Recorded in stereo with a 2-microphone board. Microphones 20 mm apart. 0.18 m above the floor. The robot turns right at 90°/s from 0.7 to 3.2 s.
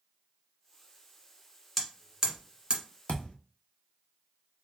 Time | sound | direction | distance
1.8 | hammering | 5° left (ahead or behind) | 1.3 m
3.1 | a thud | 65° left (ahead or behind) | 1.0 m